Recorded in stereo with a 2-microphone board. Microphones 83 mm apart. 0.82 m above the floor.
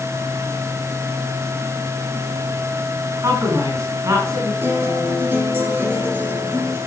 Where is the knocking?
I don't hear knocking.